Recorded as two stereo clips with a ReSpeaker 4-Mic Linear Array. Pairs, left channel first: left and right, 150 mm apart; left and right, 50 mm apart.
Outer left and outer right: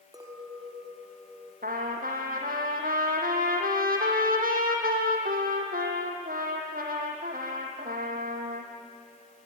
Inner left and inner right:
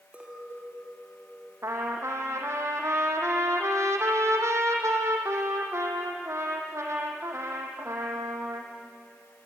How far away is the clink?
About 3 m.